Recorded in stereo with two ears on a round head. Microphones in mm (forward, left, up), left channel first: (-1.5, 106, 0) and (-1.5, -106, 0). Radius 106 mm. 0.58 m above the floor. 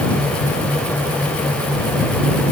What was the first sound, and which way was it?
Only background noise.